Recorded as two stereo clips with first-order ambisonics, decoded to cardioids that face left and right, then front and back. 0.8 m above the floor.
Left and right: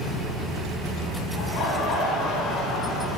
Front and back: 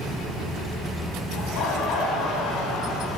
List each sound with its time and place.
1.4 s laughter: 40° left, 7.5 m